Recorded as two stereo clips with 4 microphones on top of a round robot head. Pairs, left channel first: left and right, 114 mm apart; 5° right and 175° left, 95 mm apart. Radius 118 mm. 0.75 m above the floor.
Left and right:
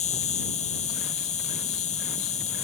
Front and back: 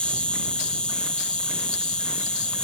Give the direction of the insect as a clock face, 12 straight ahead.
10 o'clock.